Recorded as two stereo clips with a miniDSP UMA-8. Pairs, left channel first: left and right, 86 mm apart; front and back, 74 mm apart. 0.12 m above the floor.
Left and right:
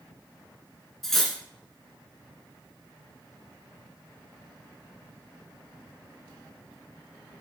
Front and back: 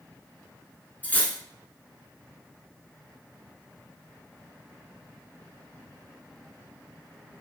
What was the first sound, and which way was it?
Cutlery clinking, 10° left.